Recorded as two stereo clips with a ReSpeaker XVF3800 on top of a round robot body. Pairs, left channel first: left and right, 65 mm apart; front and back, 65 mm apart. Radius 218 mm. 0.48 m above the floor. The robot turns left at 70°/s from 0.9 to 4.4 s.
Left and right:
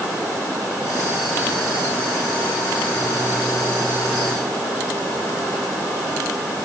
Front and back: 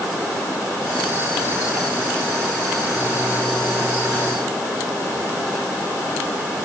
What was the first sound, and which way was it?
Only background noise.